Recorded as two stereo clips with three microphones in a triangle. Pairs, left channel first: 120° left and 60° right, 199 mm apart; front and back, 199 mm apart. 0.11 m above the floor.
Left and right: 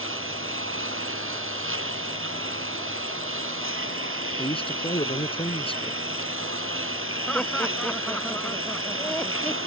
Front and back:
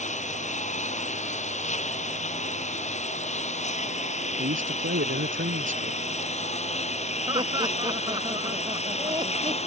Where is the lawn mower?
55° right; by 9.7 s 60° right.